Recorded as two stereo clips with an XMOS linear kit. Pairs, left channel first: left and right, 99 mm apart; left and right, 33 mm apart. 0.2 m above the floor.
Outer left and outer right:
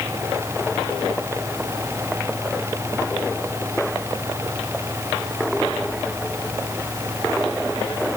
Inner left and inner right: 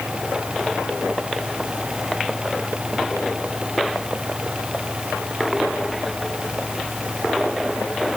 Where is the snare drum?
I don't hear a snare drum.